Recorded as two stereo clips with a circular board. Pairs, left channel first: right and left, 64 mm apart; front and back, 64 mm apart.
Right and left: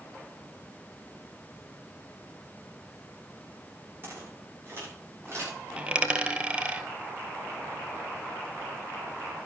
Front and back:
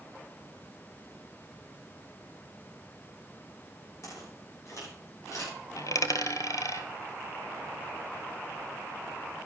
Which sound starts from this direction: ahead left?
Footsteps, at 4.0 s.